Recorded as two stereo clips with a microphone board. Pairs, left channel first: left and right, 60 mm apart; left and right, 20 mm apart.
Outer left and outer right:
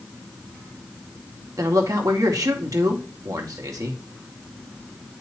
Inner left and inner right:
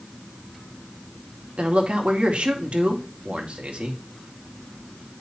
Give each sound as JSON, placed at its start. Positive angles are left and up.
{"t": 1.6, "sound": "a man speaking", "side_deg": -75, "distance_m": 1.8}